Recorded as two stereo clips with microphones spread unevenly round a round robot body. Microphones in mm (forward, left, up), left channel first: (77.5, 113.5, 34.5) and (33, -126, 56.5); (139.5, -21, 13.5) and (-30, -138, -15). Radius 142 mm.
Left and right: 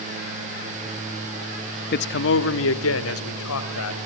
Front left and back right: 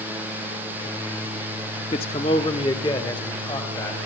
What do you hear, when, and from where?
1.9 s a man speaking: 100° left, 0.8 m; by 4.0 s 115° left, 3.5 m